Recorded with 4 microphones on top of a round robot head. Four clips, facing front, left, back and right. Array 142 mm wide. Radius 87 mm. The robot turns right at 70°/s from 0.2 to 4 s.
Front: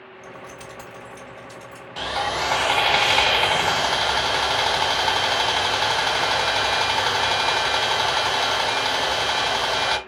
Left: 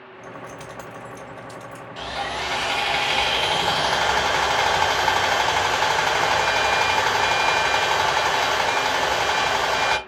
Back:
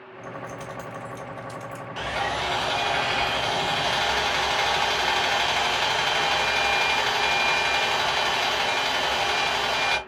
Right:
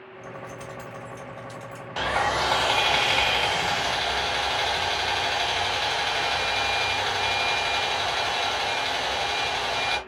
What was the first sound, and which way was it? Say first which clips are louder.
Keys jangling: left 1 dB, back 4 dB; 55° left.